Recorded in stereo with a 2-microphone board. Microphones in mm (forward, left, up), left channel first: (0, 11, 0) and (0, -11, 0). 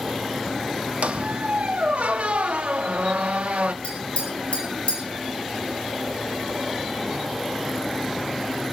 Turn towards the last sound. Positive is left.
turn(degrees=65)  # may be behind; listen again after turning